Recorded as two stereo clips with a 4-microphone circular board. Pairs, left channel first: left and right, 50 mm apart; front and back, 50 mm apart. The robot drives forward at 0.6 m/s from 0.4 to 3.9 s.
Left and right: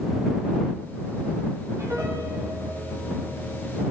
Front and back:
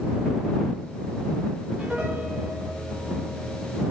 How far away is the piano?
About 3.5 m.